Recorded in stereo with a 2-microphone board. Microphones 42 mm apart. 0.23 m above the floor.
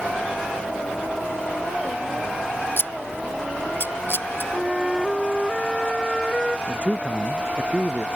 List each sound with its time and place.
2.8 s scissors: 65° left (ahead or behind)
4.5 s a flute: 5° left (ahead or behind)
6.7 s a man speaking: 30° right (ahead or behind)